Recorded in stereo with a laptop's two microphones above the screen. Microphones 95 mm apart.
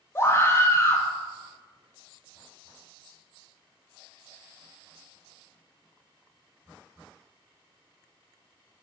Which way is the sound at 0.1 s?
25° left (ahead or behind).